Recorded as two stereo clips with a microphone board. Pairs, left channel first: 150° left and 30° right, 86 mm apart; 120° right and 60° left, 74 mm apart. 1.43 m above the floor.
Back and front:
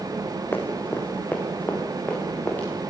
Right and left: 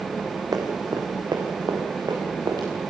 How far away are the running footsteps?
About 3.5 m.